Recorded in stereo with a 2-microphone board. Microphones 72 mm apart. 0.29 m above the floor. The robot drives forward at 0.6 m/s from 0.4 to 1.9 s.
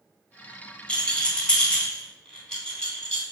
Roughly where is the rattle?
Centre.